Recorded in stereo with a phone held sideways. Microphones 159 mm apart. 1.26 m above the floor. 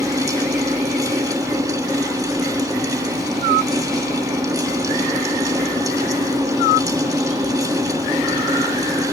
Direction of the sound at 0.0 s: 20° right (ahead or behind).